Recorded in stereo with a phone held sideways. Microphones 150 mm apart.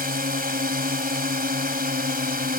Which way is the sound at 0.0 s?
80° right.